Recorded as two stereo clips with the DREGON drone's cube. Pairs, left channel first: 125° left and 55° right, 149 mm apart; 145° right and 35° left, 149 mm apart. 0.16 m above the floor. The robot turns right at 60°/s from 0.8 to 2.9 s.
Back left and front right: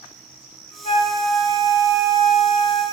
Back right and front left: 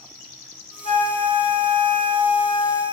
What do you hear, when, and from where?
0.8 s a flute: 170° left, 0.7 m; by 2.8 s 70° right, 0.7 m